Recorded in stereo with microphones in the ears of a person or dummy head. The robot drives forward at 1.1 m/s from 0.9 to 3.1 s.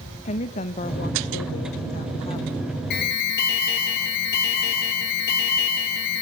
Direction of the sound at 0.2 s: 40° left (ahead or behind).